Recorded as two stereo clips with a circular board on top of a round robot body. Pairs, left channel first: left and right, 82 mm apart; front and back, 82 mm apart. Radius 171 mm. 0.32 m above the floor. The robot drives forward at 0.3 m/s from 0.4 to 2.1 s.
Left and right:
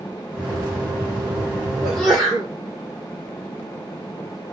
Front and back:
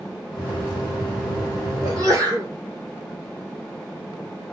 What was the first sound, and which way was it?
A sneeze, 175° left.